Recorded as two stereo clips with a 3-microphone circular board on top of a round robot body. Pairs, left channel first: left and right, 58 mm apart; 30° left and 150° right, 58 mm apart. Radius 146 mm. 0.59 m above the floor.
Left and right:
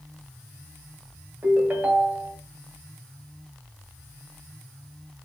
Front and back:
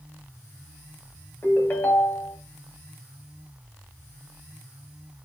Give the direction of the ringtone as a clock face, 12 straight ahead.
1 o'clock.